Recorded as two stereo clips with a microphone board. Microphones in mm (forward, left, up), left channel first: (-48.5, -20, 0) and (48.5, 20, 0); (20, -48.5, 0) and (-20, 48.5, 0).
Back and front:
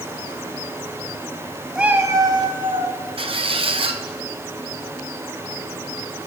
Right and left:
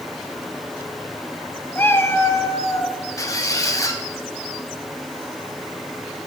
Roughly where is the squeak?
Ahead.